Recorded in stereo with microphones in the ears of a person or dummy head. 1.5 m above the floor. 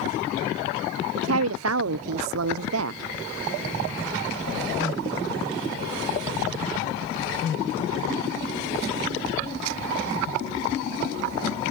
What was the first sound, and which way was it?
A woman speaking, 75° right (ahead or behind).